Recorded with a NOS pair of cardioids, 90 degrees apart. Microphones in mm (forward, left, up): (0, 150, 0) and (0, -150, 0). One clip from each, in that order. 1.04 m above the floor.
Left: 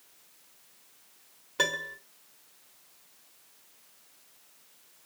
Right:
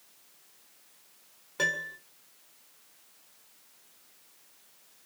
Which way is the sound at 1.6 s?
20° left.